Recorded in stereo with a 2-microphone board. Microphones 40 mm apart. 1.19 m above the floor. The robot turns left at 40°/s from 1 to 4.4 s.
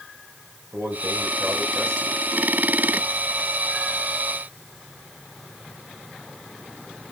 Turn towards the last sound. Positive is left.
turn(degrees=145)